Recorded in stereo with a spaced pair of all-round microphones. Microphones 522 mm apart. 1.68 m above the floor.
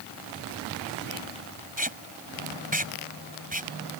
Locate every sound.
1.8 s tape being pulled: 15° right (ahead or behind)